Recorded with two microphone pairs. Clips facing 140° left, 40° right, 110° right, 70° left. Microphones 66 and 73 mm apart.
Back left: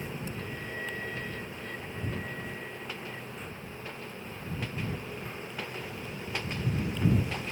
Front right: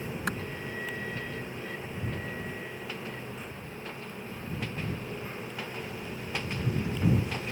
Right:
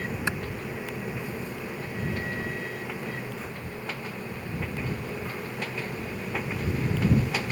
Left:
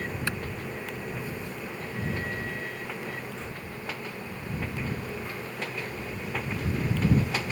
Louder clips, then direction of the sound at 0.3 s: Front right 7 dB, right 3 dB; 45° right.